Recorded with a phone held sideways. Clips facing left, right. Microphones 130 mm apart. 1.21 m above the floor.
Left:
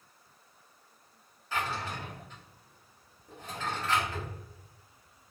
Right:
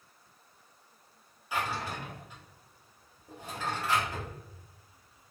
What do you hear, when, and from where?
1.5 s a drawer: 10° right (ahead or behind), 0.9 m